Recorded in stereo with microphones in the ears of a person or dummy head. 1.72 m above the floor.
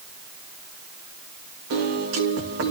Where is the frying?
I don't hear frying.